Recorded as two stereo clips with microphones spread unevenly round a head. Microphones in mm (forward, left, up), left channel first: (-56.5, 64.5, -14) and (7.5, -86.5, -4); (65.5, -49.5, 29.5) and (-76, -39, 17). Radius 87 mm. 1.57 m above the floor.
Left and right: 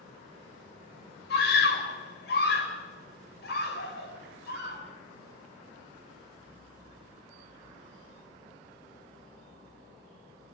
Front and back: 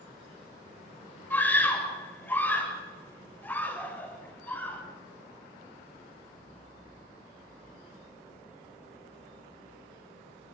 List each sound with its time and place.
1.3 s a scream: 75° left, 8.5 m